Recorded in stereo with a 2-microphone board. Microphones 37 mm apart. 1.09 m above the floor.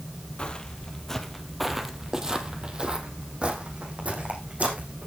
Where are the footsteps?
30° left (ahead or behind), 1.8 m; by 5.1 s 40° right (ahead or behind), 4 m.